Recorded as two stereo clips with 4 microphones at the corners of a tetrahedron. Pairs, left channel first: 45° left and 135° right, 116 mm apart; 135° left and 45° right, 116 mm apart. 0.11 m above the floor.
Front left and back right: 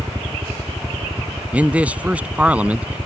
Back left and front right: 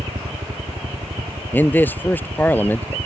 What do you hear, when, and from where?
0.0 s a helicopter: 65° right
1.5 s a man speaking: 170° left